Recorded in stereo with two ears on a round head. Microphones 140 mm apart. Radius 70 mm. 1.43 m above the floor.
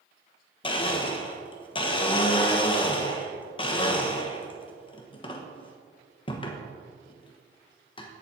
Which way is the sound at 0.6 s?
35° left (ahead or behind).